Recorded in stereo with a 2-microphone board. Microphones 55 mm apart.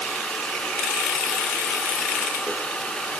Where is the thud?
I don't hear a thud.